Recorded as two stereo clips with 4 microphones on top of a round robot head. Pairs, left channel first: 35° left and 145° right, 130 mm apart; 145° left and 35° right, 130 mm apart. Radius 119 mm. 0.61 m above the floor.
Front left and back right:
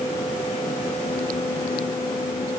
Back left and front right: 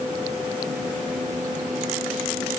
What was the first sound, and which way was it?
Only background noise.